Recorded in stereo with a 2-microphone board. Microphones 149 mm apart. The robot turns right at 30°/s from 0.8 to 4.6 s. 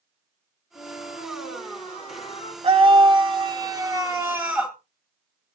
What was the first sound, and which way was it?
A flute, 100° left.